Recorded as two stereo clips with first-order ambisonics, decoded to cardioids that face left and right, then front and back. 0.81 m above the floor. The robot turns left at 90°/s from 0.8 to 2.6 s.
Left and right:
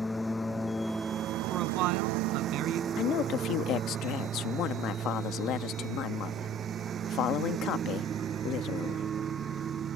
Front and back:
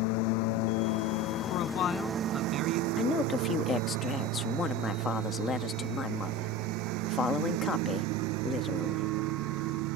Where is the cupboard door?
I don't hear a cupboard door.